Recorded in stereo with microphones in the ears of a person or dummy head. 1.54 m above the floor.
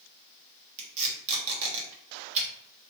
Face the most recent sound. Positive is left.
turn(degrees=-40)  # may be behind; listen again after turning